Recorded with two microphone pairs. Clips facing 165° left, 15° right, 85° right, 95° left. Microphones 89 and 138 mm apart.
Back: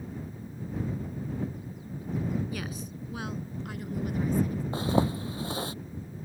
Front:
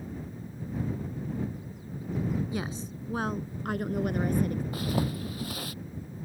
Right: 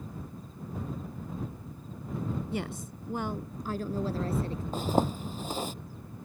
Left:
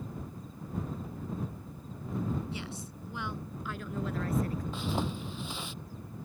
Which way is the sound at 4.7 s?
135° right.